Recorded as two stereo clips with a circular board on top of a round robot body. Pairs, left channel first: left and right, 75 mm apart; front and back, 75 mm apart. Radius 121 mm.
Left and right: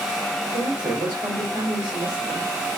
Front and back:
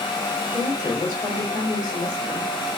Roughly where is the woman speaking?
Ahead right.